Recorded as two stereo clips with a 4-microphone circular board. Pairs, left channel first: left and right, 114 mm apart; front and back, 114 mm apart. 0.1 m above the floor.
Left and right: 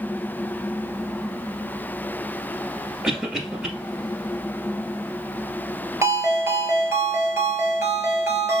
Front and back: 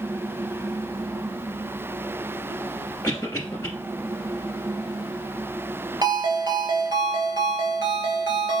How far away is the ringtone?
About 1.1 m.